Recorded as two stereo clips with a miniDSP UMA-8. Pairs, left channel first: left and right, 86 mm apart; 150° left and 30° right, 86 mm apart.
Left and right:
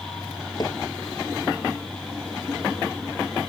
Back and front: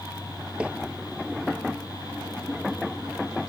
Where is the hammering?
45° left.